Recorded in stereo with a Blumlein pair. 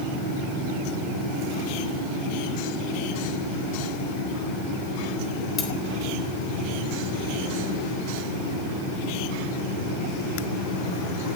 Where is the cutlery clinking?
25° left, 3 m.